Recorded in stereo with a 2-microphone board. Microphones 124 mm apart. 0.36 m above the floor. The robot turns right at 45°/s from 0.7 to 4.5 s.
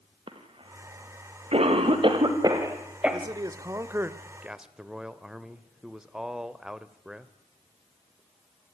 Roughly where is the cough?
Right.